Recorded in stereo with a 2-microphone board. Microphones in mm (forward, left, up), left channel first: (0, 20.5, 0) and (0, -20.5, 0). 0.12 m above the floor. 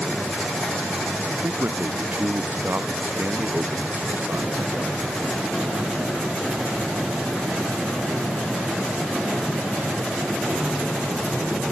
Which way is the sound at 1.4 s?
55° right (ahead or behind).